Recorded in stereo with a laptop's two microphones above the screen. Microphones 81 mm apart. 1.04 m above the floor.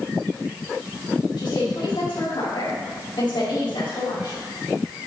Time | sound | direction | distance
1.4 | a woman speaking | 75° left (ahead or behind) | 2 m